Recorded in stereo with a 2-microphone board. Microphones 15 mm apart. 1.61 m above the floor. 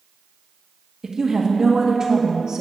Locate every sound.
1.0 s a woman speaking: 40° right (ahead or behind), 1.8 m